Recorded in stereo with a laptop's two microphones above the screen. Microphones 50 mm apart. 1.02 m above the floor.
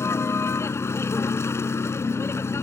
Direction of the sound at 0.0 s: 65° left (ahead or behind).